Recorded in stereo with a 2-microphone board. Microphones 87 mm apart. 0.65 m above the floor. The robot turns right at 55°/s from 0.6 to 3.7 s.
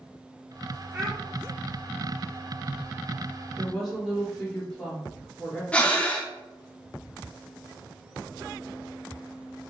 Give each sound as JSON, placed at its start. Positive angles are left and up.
{"t": 0.9, "sound": "a child speaking", "side_deg": -30, "distance_m": 0.7}
{"t": 3.6, "sound": "a woman speaking", "side_deg": 0, "distance_m": 2.0}
{"t": 5.7, "sound": "breathing", "side_deg": 15, "distance_m": 0.6}